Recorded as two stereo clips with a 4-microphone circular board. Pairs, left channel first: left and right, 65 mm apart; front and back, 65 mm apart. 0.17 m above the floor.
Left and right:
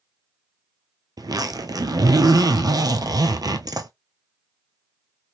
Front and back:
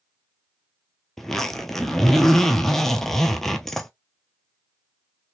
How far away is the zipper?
About 0.7 m.